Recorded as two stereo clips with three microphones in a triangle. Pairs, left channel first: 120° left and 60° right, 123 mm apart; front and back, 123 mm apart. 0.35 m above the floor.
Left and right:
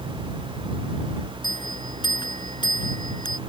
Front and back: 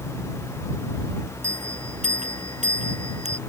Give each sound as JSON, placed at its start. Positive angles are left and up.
{"t": 1.4, "sound": "a bell", "azimuth_deg": 170}